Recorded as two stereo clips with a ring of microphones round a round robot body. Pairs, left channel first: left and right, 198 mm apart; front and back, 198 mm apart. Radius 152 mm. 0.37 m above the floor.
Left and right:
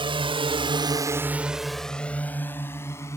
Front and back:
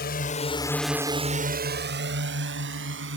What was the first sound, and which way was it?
A drone, 30° right.